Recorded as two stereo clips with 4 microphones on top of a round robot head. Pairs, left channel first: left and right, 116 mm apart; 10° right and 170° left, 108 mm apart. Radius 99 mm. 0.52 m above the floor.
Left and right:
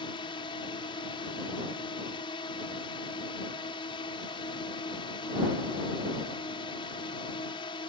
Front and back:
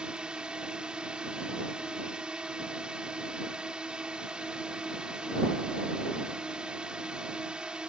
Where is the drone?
90° left.